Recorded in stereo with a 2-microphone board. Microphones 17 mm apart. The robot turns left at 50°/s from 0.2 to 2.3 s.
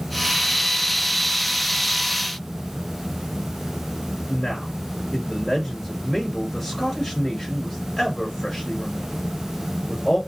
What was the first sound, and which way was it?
A man speaking, 30° left (ahead or behind).